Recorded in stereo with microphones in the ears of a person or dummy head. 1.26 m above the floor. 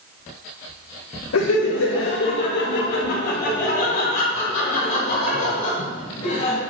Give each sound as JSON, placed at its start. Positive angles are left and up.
{"t": 1.3, "sound": "laughter", "side_deg": 90, "distance_m": 1.0}